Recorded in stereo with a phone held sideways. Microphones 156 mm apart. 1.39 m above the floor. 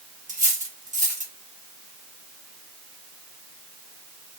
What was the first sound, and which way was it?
Cutlery clinking, 55° right (ahead or behind).